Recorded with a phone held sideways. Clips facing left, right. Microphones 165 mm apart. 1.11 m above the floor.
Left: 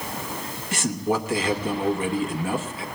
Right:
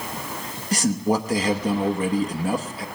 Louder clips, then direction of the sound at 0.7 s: Right 3 dB; 40° right (ahead or behind).